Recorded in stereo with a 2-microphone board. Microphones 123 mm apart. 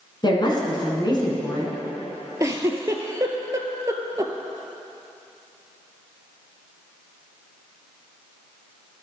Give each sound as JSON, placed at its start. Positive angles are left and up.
{"t": 0.2, "sound": "a woman speaking", "side_deg": 40, "distance_m": 2.0}
{"t": 2.4, "sound": "a giggle", "side_deg": -25, "distance_m": 0.7}